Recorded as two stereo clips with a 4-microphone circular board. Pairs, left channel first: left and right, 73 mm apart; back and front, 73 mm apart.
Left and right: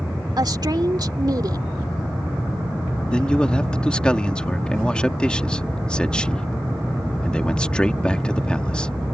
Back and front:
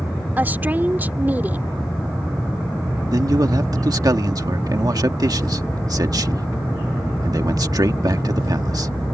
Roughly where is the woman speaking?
Ahead right.